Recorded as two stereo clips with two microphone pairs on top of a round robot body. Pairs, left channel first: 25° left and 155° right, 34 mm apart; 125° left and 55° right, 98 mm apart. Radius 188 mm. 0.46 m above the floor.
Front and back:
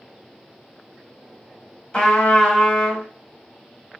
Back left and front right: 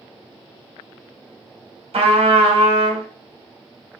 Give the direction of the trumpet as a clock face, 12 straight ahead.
1 o'clock.